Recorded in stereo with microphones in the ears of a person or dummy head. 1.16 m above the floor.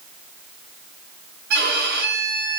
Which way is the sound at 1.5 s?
55° right (ahead or behind).